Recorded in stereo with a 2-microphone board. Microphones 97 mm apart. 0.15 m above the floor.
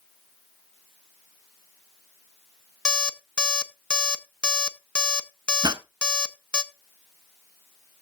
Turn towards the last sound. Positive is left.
turn(degrees=-45)  # may be behind; listen again after turning